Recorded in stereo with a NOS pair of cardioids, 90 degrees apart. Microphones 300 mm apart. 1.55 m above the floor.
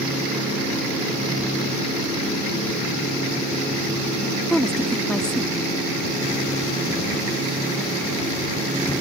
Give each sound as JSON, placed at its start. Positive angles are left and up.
{"t": 4.5, "sound": "a woman speaking", "azimuth_deg": 0}